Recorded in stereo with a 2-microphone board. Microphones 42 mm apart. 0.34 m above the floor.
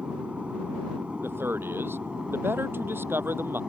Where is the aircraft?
30° right (ahead or behind); by 3.7 s 20° right (ahead or behind).